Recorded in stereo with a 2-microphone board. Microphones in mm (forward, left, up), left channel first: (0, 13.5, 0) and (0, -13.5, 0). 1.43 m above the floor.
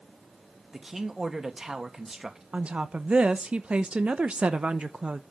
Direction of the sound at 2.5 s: 50° right (ahead or behind).